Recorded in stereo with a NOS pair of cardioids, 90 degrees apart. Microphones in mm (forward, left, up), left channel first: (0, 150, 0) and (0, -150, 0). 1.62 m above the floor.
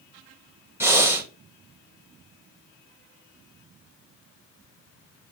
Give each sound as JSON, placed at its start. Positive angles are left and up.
{"t": 0.8, "sound": "breathing", "azimuth_deg": -10, "distance_m": 1.4}